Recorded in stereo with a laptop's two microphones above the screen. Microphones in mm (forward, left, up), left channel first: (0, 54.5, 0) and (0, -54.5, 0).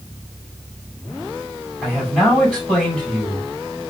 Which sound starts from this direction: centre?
A man speaking, at 1.8 s.